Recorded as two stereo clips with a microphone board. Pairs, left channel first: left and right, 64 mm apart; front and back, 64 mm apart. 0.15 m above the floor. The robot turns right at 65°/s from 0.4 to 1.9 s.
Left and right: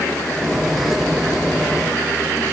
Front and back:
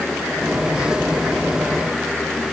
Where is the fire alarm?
No fire alarm in this recording.